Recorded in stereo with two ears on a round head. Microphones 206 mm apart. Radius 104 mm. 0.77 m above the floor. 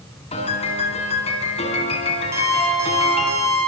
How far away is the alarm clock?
About 8.5 m.